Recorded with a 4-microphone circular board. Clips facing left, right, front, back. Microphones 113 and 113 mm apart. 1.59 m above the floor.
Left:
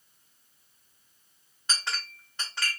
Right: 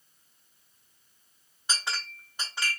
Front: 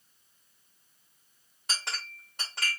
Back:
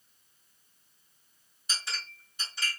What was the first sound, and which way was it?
A clink, 10° right.